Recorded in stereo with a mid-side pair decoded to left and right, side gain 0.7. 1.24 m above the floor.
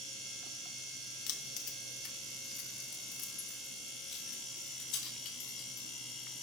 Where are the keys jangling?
65° left, 0.9 m.